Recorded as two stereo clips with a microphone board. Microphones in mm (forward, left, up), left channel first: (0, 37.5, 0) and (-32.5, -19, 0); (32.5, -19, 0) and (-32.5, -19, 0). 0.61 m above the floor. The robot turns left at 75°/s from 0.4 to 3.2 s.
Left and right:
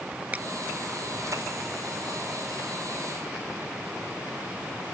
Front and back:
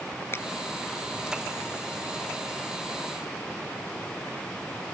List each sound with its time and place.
0.3 s a finger snap: 55° right